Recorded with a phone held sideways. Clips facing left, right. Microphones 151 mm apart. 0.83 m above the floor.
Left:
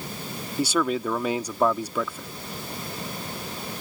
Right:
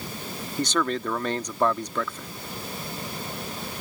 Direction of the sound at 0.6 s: 10° left (ahead or behind).